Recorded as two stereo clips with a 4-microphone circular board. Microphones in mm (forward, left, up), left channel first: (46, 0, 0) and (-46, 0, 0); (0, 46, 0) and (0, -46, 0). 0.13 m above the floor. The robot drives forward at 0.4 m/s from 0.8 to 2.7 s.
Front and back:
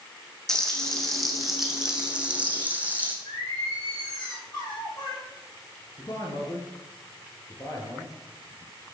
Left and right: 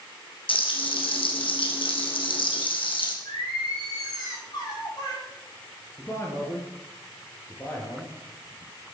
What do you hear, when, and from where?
0.5 s frying: 85° left, 1.9 m; by 3.1 s 105° left, 2.0 m
3.2 s singing: 45° left, 5.5 m
6.0 s a man speaking: 35° left, 2.5 m